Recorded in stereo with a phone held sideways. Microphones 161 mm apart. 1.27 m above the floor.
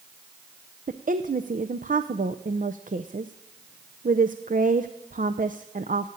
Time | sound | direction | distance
0.9 | a woman speaking | 60° right (ahead or behind) | 0.6 m